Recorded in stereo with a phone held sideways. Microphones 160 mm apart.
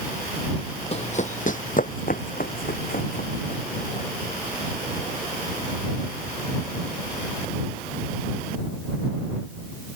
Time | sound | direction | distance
0.9 | running footsteps | 40° left (ahead or behind) | ?